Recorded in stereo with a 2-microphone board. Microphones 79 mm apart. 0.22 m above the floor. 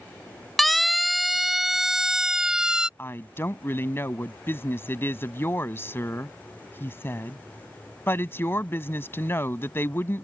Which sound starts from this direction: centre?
A siren, at 0.6 s.